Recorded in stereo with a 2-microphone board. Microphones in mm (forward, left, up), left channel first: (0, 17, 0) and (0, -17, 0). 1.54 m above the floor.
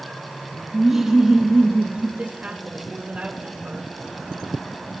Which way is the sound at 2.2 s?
40° right (ahead or behind).